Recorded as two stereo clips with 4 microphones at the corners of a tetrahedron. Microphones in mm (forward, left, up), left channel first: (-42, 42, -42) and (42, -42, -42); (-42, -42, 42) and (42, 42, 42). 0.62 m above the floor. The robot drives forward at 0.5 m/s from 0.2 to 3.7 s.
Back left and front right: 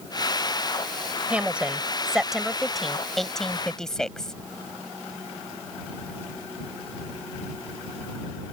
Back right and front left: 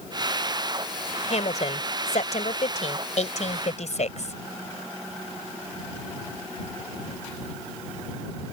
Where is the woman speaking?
125° right; by 4.3 s 140° right.